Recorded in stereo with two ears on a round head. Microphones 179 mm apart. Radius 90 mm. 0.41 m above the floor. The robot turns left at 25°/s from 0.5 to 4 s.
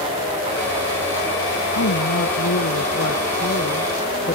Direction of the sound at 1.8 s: 95° left.